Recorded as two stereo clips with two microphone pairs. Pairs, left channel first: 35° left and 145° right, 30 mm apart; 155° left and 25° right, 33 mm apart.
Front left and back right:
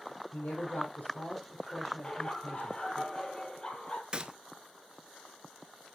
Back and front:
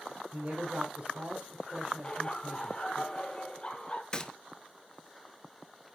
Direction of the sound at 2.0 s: 95° left.